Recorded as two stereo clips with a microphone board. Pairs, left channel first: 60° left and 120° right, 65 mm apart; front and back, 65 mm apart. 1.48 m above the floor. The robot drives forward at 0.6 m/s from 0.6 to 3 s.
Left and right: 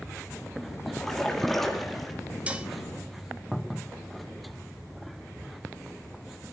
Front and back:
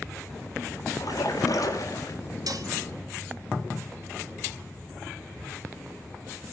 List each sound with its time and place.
0.9 s a splash: 25° right, 4 m; by 2.2 s 30° right, 3 m
2.5 s dishes clattering: 170° left, 1.5 m; by 2.7 s 175° left, 1.6 m